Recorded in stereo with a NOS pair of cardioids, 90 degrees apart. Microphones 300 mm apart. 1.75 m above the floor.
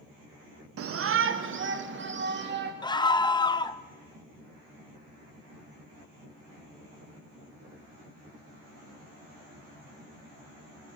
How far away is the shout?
About 1.5 m.